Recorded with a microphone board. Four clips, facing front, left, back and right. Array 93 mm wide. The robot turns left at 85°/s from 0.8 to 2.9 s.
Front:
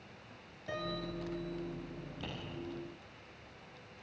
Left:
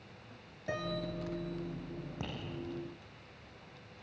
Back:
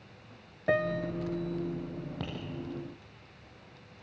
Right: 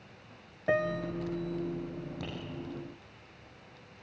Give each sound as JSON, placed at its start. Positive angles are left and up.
{"t": 0.7, "sound": "a piano", "azimuth_deg": -145, "distance_m": 0.8}
{"t": 2.2, "sound": "tapping", "azimuth_deg": 155, "distance_m": 7.5}